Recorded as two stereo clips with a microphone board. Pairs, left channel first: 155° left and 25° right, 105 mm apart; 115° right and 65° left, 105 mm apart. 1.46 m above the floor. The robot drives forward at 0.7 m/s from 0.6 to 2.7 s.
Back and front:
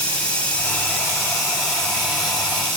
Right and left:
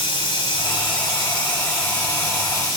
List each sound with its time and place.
0.0 s running water: 130° right, 1.3 m; by 2.8 s 160° right, 2.5 m